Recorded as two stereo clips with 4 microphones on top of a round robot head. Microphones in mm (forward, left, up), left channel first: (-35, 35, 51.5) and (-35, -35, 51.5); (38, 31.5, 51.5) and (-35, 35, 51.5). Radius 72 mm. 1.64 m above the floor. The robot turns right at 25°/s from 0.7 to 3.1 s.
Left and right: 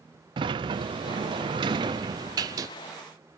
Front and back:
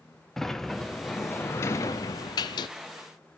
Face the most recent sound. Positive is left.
turn(degrees=-30)